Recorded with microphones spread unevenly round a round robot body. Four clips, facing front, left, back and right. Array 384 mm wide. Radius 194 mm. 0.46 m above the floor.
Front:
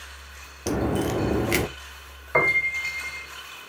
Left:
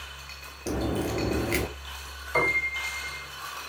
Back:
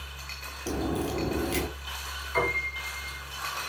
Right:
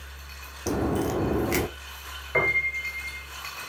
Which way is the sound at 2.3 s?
35° right.